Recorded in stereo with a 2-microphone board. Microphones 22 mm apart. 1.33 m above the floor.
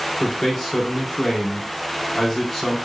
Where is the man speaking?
5° right (ahead or behind), 4.5 m.